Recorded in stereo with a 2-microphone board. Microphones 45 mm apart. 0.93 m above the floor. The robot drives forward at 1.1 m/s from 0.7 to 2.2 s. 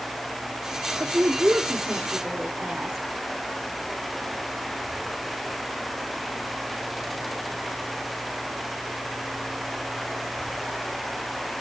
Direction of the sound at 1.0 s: 50° right (ahead or behind).